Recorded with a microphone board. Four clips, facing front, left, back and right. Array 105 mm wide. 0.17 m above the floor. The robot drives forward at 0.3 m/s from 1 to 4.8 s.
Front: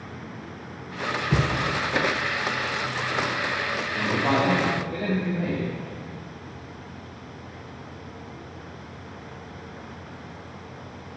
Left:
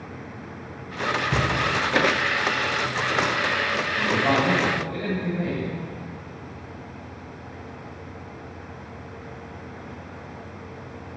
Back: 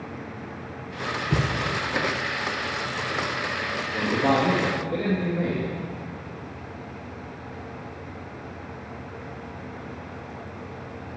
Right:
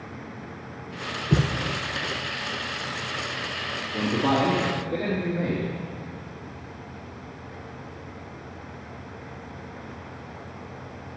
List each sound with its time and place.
1.3 s a thud: 95° right, 1.1 m
3.9 s a man speaking: 150° right, 3 m